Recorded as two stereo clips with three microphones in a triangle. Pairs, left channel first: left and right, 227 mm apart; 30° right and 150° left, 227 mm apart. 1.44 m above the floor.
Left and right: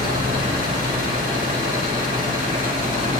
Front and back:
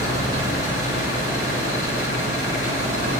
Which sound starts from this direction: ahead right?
An engine running, at 0.0 s.